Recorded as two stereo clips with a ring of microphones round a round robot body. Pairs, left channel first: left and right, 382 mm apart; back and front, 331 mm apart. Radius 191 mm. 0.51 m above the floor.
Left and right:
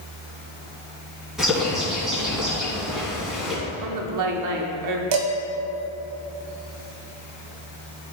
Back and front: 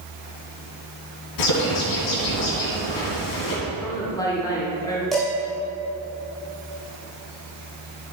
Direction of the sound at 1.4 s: Straight behind.